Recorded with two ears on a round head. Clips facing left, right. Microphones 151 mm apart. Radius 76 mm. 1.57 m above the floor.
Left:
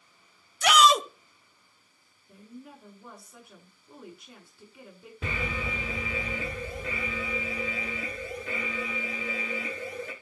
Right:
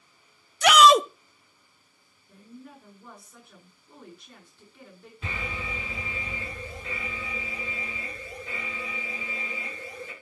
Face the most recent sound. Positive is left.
turn(degrees=55)  # may be behind; listen again after turning